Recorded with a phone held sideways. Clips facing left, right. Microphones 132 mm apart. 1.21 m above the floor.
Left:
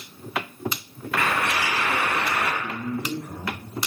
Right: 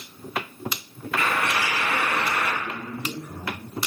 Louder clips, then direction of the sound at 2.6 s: Left 3 dB; 70° left (ahead or behind).